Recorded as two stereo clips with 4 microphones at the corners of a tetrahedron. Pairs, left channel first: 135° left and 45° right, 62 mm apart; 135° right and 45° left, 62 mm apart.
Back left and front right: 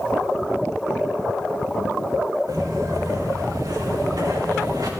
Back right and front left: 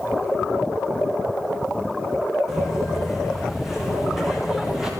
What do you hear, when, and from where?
2.5 s footsteps: 45° right, 9.5 m; by 4.9 s 40° right, 7 m